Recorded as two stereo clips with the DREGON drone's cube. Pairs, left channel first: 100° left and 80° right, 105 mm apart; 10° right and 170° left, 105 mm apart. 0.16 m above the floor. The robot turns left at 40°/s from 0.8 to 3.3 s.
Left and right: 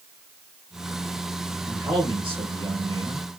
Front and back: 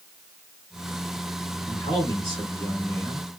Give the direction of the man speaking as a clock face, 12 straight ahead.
1 o'clock.